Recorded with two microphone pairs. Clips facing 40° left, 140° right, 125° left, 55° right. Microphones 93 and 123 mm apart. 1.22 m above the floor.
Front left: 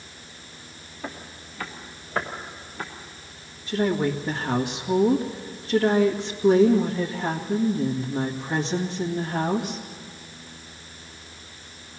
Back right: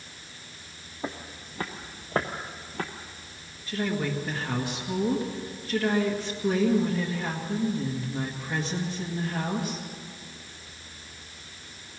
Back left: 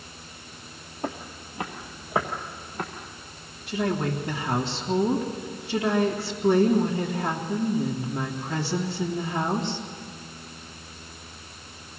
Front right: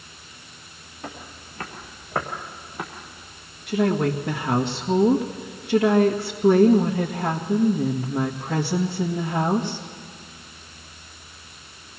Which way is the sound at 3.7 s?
30° right.